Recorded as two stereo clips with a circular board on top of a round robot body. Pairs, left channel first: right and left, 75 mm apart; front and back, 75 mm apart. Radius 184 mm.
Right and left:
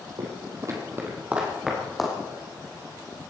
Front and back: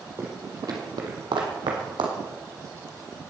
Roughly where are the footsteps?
Behind left.